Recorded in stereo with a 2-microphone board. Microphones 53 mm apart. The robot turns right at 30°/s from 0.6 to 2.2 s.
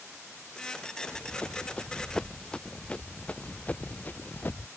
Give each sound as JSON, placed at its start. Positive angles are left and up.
{"t": 1.0, "sound": "running footsteps", "side_deg": 35}